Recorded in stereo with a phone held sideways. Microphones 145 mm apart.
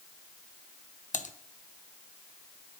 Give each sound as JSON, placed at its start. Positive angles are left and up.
{"t": 1.1, "sound": "typing on a keyboard", "side_deg": 60, "distance_m": 0.7}